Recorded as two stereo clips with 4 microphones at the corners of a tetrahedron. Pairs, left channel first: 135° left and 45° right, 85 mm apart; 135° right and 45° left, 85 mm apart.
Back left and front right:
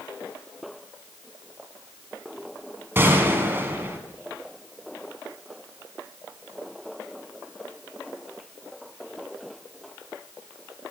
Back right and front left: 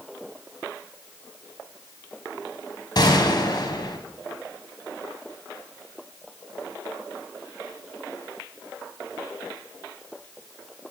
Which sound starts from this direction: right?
A gunshot, at 3.0 s.